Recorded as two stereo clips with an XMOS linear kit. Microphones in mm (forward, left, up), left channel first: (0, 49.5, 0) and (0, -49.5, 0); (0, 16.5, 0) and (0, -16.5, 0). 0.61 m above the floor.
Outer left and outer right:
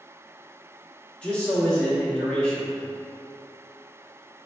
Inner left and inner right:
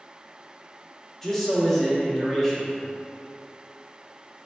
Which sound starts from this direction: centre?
A man speaking, at 1.2 s.